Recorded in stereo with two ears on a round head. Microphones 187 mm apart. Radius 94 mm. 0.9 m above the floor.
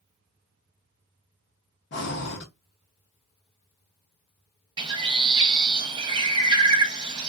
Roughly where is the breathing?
Left.